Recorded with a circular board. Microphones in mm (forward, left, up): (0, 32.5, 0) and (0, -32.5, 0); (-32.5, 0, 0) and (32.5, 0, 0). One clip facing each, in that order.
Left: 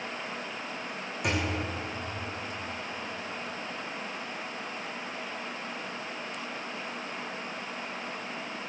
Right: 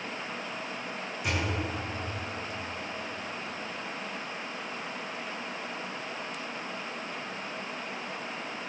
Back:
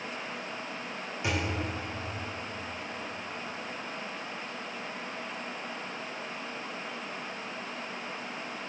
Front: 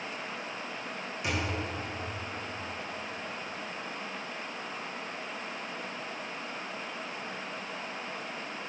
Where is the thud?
115° left, 2.5 m.